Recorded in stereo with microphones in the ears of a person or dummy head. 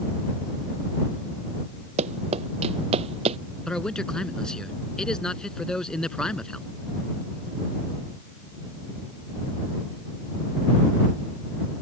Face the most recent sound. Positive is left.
turn(degrees=5)  # may be behind; listen again after turning